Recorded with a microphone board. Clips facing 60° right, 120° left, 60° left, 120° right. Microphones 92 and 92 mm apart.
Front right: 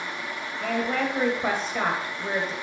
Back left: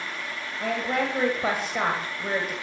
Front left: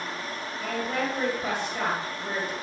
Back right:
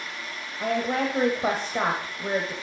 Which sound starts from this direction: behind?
A woman speaking, at 0.6 s.